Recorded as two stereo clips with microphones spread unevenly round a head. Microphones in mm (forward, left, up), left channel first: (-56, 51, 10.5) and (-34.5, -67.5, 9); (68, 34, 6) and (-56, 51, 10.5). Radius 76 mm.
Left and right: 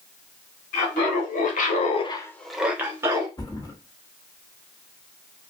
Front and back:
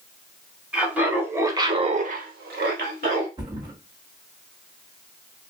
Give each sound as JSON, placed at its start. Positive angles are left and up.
{"t": 0.7, "sound": "laughter", "azimuth_deg": 90, "distance_m": 2.5}
{"t": 3.4, "sound": "a thud", "azimuth_deg": 140, "distance_m": 1.3}